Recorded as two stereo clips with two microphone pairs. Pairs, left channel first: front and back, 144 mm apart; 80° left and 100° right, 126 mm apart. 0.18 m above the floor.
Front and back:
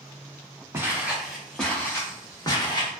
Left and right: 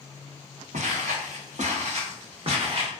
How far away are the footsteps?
About 1.2 m.